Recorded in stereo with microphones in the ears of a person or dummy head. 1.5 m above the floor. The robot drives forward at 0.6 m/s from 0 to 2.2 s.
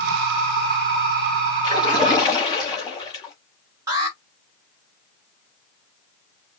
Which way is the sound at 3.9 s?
20° right (ahead or behind).